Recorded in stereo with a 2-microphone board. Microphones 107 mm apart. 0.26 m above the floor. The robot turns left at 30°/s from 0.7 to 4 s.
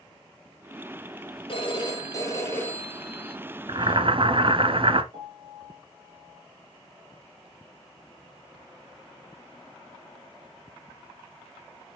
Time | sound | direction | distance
1.5 | a phone ringing | 50° left | 4 m
3.7 | boiling | 45° right (ahead or behind) | 0.8 m
5.1 | a piano | 60° right (ahead or behind) | 6 m